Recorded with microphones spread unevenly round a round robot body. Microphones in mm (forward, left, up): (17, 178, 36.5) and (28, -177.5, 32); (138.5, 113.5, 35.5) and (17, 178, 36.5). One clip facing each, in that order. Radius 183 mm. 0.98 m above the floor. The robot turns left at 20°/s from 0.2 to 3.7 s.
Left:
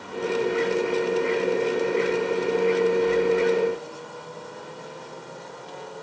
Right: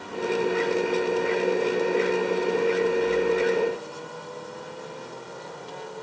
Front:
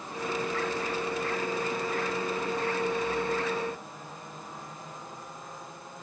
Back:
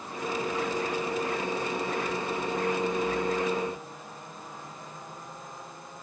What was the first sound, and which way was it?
Only background noise.